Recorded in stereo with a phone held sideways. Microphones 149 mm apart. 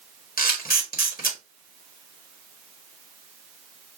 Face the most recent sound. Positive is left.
turn(degrees=75)  # may be behind; listen again after turning